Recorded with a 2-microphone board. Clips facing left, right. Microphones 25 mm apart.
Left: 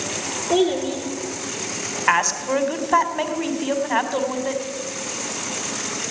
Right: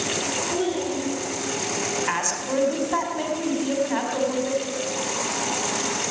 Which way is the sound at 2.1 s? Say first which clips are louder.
Left 6 dB; 35° left (ahead or behind).